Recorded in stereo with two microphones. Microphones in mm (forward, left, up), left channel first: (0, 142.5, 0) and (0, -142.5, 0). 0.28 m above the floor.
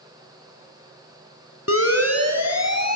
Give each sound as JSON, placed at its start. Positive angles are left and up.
{"t": 1.7, "sound": "a siren", "side_deg": 50, "distance_m": 3.0}